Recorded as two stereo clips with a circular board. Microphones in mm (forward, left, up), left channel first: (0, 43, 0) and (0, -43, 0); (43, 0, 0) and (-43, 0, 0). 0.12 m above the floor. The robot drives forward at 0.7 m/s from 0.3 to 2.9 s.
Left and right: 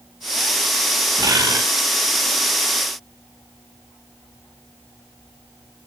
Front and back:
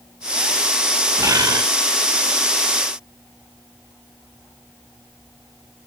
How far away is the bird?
About 1.6 m.